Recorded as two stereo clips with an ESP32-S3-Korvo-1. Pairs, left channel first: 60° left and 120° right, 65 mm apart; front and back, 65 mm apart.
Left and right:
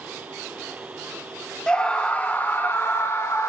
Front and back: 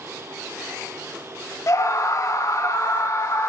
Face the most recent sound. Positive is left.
turn(degrees=25)